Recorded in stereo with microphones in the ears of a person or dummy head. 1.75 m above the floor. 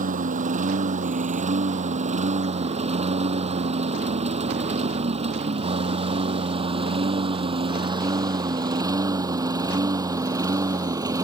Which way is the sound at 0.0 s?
40° right (ahead or behind).